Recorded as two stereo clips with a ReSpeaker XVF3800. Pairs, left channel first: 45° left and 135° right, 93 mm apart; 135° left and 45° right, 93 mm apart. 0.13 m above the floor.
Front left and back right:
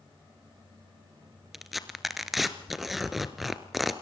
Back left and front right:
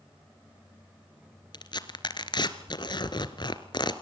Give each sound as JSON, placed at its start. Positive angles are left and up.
{"t": 1.5, "sound": "tearing paper", "azimuth_deg": 135, "distance_m": 1.5}